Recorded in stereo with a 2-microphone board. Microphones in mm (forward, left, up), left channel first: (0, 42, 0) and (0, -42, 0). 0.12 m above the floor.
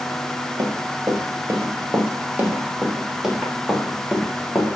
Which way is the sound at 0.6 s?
45° right (ahead or behind).